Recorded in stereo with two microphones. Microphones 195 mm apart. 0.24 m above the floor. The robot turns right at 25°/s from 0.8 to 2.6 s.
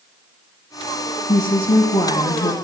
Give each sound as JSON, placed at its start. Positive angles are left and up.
{"t": 1.3, "sound": "a woman speaking", "side_deg": 30, "distance_m": 1.1}